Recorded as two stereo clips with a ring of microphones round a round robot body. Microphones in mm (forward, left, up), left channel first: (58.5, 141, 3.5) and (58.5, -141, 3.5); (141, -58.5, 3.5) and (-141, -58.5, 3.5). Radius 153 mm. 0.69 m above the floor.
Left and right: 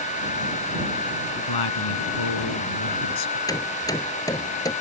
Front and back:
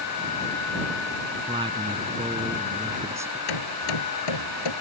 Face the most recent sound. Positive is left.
turn(degrees=10)